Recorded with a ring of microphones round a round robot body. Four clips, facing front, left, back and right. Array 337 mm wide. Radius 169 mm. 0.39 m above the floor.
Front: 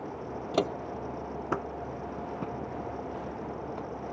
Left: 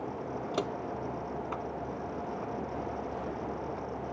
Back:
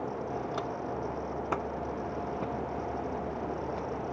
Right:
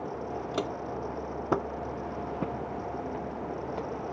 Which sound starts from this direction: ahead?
Footsteps, at 0.5 s.